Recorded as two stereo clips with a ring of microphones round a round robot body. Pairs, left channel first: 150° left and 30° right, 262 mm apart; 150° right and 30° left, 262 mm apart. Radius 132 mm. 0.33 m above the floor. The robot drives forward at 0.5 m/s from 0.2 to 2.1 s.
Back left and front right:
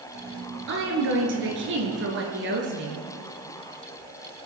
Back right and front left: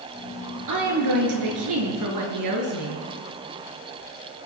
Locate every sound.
0.7 s a woman speaking: 15° left, 5 m; by 3.0 s 20° left, 4.5 m